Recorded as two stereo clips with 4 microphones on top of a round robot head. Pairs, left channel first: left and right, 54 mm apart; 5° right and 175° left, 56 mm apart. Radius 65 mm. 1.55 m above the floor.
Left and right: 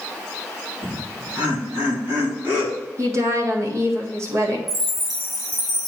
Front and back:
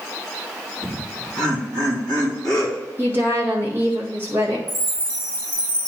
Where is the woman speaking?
125° right, 1.7 m.